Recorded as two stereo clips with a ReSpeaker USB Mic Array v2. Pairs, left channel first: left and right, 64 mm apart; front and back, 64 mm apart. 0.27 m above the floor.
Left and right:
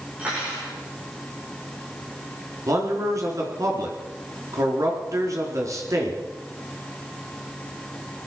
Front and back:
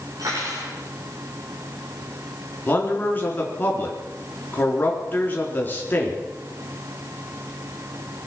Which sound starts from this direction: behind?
Cutlery clinking, at 0.2 s.